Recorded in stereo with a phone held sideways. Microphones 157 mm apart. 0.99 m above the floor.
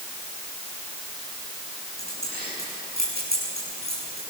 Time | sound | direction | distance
2.0 | keys jangling | 80° right | 8.5 m